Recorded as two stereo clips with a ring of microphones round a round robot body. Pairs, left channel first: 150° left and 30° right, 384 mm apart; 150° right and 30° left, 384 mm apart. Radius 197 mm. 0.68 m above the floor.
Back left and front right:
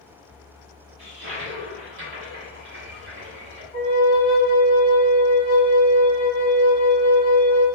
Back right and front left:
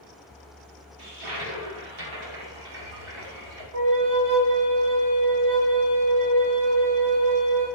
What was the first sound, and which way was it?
A toilet flushing, 25° left.